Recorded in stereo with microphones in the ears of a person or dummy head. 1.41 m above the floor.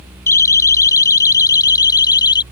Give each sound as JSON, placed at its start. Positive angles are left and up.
{"t": 0.3, "sound": "a siren", "side_deg": 15}